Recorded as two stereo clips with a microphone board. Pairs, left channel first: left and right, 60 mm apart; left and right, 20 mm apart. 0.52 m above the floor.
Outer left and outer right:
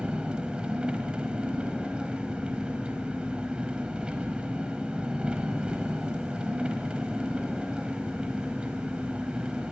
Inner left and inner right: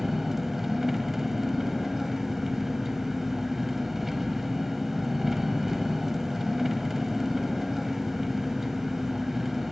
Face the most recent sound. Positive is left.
turn(degrees=-15)  # may be behind; listen again after turning